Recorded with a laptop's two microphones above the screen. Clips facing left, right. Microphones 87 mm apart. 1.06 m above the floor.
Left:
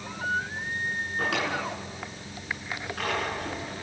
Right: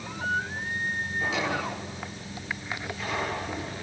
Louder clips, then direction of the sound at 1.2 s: Even; 85° left.